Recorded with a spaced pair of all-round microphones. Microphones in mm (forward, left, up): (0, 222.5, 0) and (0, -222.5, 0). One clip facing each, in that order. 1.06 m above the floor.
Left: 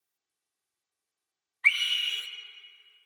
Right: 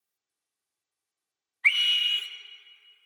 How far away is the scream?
About 0.7 m.